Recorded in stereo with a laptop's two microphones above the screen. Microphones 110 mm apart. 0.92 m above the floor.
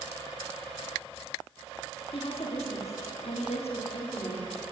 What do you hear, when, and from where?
2.1 s a woman speaking: 60° left (ahead or behind), 1.9 m; by 4.5 s 40° left (ahead or behind), 1.7 m